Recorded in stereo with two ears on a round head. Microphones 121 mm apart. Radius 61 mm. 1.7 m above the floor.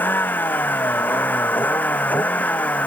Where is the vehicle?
15° left (ahead or behind); by 2.9 s 10° left (ahead or behind).